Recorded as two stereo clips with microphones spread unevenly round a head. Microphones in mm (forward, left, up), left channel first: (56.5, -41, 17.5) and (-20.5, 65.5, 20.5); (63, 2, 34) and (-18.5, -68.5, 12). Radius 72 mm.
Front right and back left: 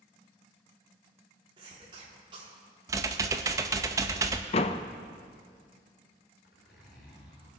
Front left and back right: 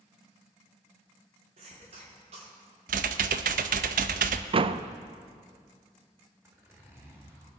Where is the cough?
175° right, 3.5 m.